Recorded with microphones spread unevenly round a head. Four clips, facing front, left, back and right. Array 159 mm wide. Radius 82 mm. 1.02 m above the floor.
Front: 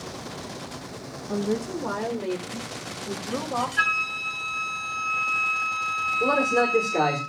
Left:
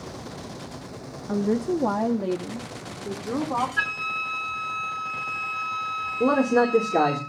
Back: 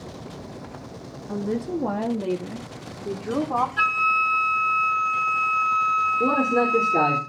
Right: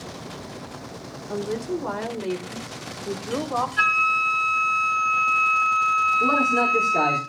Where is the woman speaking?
95° left, 1.9 m; by 3.7 s 155° left, 3.5 m.